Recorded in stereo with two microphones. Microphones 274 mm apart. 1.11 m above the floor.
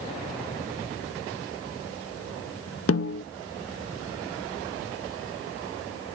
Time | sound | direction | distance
2.9 | a snare drum | 55° left (ahead or behind) | 0.5 m